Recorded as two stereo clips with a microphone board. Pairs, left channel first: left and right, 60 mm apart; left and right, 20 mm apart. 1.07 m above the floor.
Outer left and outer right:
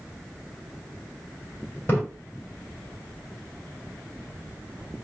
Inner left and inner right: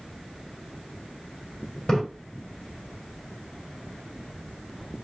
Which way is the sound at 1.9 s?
30° left (ahead or behind).